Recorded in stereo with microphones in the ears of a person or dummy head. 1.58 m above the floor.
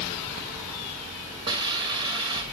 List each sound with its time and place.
1.5 s a hiss: 30° right (ahead or behind), 1.4 m